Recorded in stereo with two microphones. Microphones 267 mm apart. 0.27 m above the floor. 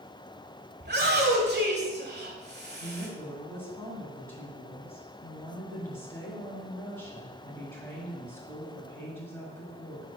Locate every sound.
0.8 s a shout: 40° right (ahead or behind), 1.3 m
2.8 s a woman speaking: 10° left (ahead or behind), 1.8 m